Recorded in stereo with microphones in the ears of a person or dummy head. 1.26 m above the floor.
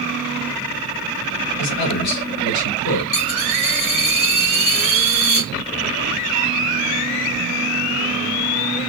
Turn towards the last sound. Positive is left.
turn(degrees=70)  # may be behind; listen again after turning